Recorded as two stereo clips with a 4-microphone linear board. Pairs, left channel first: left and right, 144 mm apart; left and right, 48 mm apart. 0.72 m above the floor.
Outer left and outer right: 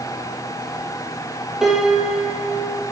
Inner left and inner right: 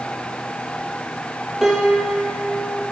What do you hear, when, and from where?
1.6 s a piano: 5° right (ahead or behind), 4 m